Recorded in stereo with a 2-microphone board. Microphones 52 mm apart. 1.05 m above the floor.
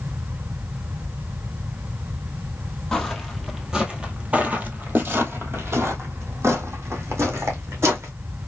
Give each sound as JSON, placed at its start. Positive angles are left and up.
{"t": 2.9, "sound": "footsteps", "side_deg": 10, "distance_m": 1.4}